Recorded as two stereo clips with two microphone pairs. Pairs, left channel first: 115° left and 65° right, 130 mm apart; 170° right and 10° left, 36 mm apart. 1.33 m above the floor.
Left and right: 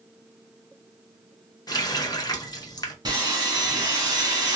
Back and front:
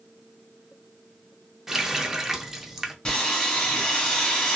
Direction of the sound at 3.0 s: 100° right.